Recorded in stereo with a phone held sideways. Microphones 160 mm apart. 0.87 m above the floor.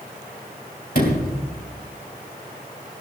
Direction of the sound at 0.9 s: 65° left (ahead or behind).